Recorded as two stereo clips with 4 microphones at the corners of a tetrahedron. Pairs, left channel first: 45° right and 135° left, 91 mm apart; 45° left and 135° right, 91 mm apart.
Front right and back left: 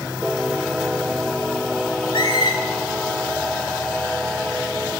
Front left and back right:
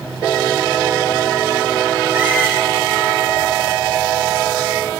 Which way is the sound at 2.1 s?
70° right.